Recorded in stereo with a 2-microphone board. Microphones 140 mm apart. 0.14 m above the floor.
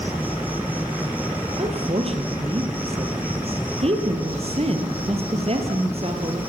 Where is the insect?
10° right (ahead or behind), 1.9 m.